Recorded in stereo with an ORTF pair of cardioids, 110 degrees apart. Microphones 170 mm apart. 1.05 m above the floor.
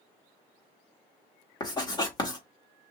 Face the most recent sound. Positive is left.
turn(degrees=25)